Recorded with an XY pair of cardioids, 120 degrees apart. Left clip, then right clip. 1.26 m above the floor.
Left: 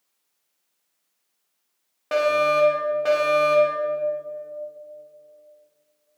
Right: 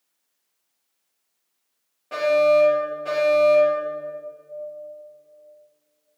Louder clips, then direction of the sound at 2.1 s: Right 2 dB; 65° left.